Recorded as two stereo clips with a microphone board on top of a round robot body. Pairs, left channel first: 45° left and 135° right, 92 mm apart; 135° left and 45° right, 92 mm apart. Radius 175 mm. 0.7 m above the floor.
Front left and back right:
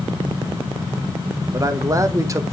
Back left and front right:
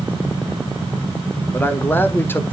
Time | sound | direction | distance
1.5 | a man speaking | 170° right | 1.1 m